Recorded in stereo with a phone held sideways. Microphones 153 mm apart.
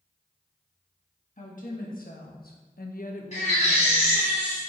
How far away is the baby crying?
About 3 m.